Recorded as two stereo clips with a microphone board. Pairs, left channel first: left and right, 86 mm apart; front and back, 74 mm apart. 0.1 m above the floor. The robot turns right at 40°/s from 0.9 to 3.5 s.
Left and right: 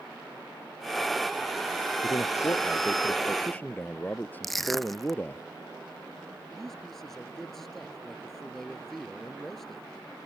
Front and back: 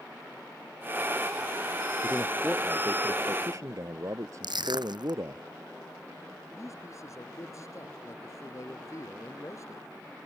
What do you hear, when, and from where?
2.0 s a man speaking: 95° left; by 5.4 s 155° left
4.4 s crushing: straight behind
6.5 s a man speaking: 5° left